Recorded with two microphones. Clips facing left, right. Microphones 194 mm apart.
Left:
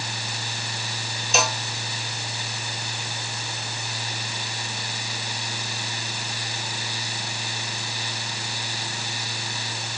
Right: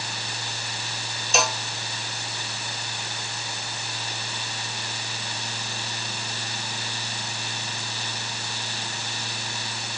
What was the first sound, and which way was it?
A cowbell, centre (ahead or behind).